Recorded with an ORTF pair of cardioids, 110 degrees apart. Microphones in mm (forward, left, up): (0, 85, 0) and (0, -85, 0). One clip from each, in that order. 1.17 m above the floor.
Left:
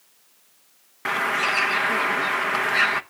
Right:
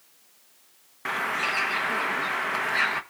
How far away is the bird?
About 0.9 m.